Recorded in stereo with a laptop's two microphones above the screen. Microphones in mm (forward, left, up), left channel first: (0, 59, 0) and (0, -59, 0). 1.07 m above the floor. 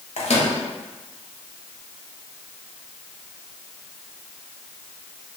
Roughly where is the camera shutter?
No camera shutter in this recording.